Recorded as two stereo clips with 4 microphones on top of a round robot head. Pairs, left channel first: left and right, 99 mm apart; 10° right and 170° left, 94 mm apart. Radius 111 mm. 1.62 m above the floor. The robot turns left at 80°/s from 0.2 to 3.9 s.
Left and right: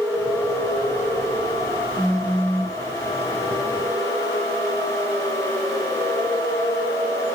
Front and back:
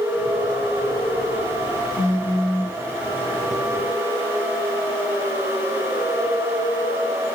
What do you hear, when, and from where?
2.0 s a phone buzzing: 35° right, 2.5 m; by 2.8 s 100° right, 2.5 m